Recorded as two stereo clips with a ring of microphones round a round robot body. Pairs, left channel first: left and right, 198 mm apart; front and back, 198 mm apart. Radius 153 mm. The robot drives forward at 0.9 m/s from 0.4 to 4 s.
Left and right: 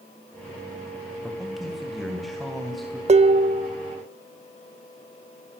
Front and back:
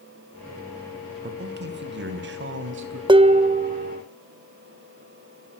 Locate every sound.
1.2 s a man speaking: straight behind, 2 m
3.1 s dishes clattering: 125° right, 1.0 m; by 4.0 s 155° right, 1.5 m